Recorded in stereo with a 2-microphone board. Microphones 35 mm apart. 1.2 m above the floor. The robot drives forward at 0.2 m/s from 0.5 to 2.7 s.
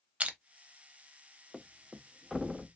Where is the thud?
5° right (ahead or behind), 0.5 m; by 2.7 s centre (ahead or behind), 0.7 m.